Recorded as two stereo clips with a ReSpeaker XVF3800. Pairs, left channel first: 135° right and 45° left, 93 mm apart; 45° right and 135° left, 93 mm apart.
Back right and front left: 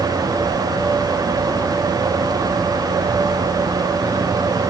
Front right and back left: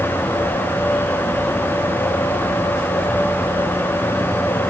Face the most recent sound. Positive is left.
No sound to turn to.